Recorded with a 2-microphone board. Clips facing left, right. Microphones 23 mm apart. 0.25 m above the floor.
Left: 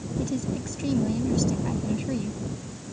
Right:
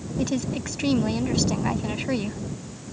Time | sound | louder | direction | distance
0.2 | a woman speaking | right 3 dB | 45° right (ahead or behind) | ?